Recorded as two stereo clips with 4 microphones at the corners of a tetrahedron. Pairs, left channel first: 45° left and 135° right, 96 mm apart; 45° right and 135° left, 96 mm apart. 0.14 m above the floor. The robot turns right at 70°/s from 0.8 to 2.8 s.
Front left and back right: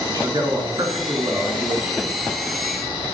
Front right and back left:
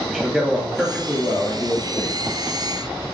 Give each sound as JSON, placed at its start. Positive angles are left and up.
{"t": 0.1, "sound": "a man speaking", "azimuth_deg": -140, "distance_m": 2.5}